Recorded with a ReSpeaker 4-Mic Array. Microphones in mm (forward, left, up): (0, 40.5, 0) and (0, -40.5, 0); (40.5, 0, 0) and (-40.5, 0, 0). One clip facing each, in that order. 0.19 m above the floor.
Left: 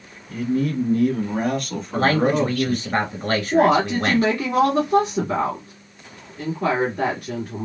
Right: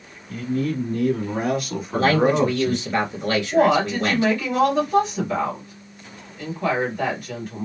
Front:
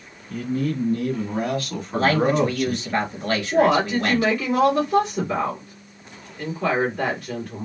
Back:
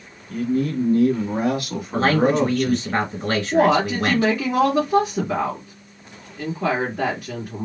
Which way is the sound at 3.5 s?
105° left.